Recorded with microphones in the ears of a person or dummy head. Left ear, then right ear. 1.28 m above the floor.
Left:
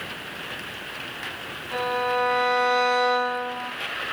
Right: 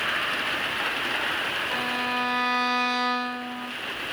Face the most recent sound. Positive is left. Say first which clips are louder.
# left 2 dB
turn(degrees=-35)  # may be behind; listen again after turning